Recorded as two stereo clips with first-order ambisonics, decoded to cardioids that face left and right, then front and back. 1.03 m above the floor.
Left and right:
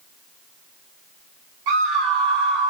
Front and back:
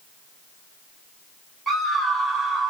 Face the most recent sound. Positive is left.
turn(degrees=-95)